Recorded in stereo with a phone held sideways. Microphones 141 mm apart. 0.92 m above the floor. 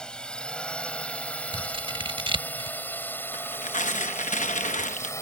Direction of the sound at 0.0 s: 5° left (ahead or behind).